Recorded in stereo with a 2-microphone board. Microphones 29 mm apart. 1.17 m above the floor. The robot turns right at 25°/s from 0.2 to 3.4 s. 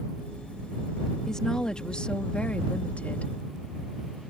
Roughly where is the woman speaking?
Ahead left.